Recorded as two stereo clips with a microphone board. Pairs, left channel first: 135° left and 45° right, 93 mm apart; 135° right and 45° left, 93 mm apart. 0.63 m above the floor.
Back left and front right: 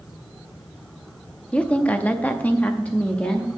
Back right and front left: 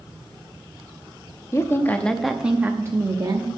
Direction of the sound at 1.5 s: 155° right.